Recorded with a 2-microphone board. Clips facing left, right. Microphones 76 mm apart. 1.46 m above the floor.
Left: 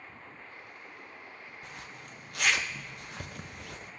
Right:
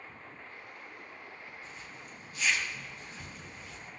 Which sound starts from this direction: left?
A zipper, at 1.6 s.